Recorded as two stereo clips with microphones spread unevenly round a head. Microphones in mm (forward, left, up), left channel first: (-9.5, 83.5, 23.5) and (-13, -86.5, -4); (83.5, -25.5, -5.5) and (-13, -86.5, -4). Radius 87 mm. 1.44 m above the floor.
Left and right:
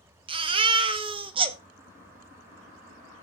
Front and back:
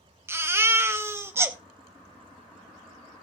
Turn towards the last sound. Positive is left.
turn(degrees=-130)